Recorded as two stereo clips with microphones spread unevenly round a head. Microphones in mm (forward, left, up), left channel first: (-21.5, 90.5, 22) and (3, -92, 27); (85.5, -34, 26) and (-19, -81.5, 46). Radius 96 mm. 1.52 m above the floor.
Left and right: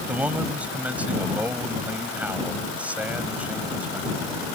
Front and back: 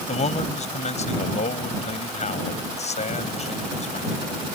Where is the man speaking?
Straight ahead.